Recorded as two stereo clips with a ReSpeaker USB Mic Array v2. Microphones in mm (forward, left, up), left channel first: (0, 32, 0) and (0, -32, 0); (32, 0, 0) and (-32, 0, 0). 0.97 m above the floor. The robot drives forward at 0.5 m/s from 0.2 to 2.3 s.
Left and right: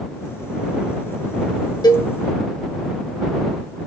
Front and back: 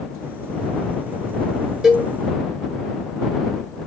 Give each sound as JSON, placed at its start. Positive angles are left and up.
{"t": 1.8, "sound": "a cowbell", "azimuth_deg": 100, "distance_m": 0.9}